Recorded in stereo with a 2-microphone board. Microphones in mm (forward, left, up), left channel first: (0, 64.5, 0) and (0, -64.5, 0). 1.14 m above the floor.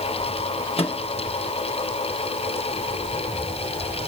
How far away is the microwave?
About 0.9 m.